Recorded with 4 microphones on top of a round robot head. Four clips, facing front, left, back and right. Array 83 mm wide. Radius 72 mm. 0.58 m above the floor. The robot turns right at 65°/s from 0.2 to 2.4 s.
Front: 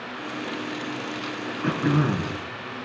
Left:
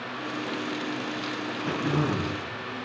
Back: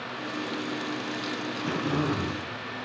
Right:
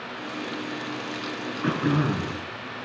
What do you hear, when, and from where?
1.6 s throat clearing: 60° right, 5.5 m; by 2.4 s 10° right, 5.5 m